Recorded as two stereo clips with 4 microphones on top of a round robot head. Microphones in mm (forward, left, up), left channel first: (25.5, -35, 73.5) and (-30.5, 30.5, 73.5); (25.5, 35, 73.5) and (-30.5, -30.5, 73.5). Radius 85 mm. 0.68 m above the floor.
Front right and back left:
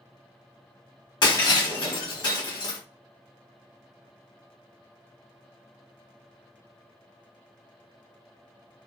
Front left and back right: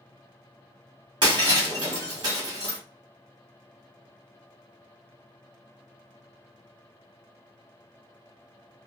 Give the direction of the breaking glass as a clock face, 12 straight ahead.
3 o'clock.